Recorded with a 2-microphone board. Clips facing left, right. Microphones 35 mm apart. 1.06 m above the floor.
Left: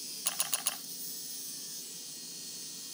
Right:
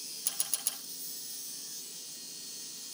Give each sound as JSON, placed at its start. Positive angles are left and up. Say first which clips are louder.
{"t": 0.2, "sound": "a camera shutter", "louder": "left 5 dB", "side_deg": 50, "distance_m": 1.3}